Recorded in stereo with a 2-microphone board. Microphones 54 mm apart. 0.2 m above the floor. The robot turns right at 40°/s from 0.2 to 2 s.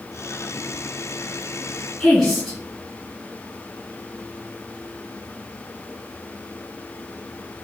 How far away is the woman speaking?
About 1.7 m.